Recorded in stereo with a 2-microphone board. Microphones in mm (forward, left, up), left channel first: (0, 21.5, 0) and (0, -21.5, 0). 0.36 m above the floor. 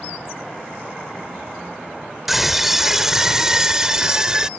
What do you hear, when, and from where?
2.3 s a scream: 5° right (ahead or behind); by 4.5 s 20° right (ahead or behind)